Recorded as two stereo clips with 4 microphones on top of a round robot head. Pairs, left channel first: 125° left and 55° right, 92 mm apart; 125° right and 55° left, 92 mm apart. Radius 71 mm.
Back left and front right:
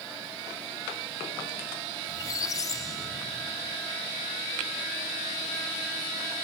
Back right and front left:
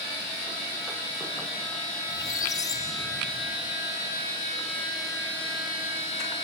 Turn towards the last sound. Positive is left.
turn(degrees=180)